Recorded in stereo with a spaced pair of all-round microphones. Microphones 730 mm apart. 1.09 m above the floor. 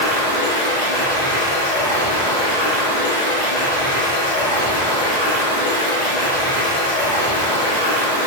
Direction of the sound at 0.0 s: 60° left (ahead or behind).